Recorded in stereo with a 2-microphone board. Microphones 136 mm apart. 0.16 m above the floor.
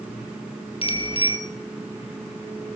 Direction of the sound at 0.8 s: 45° left (ahead or behind).